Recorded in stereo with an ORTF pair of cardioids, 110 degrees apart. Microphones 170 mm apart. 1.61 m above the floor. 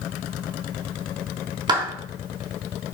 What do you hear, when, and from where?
1.7 s a clap: 25° right, 3 m